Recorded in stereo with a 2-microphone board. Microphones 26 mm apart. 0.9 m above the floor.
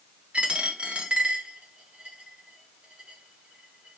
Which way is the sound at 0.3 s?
55° right (ahead or behind).